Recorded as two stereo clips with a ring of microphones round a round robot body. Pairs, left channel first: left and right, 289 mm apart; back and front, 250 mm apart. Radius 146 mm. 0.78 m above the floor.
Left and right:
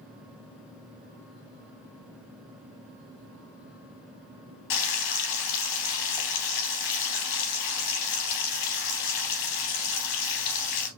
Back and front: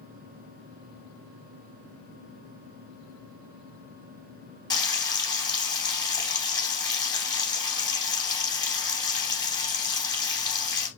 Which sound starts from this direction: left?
Frying, at 4.7 s.